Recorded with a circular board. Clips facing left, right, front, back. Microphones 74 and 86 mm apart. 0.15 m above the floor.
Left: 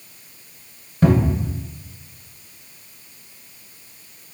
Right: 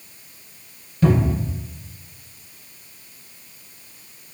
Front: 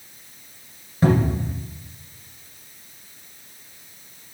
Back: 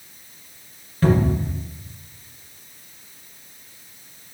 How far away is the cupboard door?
About 1.4 m.